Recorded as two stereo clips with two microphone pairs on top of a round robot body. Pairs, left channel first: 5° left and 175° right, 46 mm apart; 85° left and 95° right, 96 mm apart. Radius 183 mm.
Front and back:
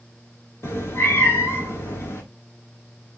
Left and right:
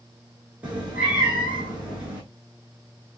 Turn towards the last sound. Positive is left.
turn(degrees=-20)